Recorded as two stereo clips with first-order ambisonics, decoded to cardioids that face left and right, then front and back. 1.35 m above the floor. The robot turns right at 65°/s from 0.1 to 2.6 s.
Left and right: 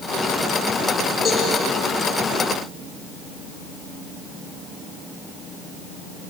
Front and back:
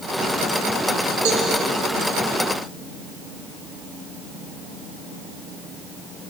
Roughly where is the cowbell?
Behind.